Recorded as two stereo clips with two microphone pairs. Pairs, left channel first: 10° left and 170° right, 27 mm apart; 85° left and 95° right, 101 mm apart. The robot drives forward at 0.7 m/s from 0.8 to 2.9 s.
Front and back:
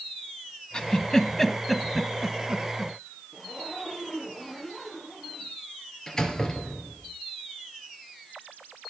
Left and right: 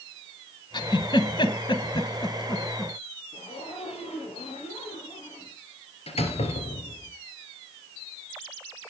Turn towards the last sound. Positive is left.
turn(degrees=80)